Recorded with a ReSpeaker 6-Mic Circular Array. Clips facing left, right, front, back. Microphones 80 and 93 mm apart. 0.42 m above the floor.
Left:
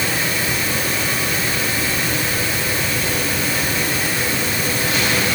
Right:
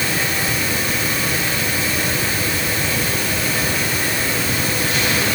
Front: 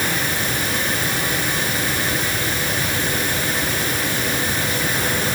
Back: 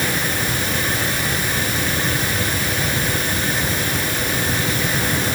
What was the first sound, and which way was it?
Only background noise.